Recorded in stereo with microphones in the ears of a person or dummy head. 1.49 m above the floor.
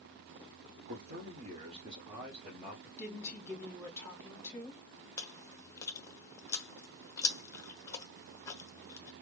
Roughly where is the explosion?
I don't hear an explosion.